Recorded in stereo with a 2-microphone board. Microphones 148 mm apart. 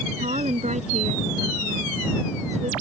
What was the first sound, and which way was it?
A woman speaking, 50° right (ahead or behind).